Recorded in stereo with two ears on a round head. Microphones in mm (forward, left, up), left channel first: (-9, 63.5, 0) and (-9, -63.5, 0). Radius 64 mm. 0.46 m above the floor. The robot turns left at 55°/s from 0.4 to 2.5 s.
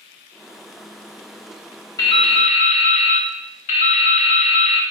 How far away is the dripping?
About 1.2 m.